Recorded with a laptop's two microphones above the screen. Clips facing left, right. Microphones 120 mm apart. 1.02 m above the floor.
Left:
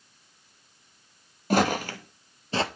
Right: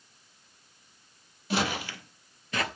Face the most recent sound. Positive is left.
turn(degrees=25)  # may be behind; listen again after turning